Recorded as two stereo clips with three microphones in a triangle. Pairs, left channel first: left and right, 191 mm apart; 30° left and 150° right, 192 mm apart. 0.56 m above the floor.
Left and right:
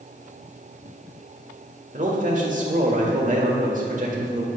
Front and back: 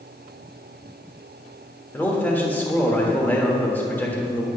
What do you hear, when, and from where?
1.9 s a man speaking: 50° right, 1.3 m